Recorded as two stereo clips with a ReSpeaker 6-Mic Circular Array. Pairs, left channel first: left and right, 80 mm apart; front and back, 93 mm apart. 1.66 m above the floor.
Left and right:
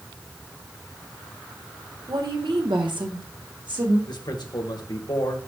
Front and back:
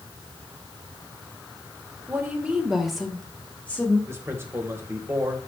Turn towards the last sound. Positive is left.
turn(degrees=120)